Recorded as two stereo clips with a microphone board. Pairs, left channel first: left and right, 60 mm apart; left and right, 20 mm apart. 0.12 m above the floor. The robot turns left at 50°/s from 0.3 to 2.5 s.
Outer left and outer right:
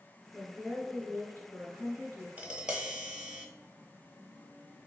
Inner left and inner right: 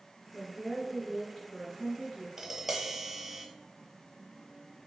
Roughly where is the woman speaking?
Behind.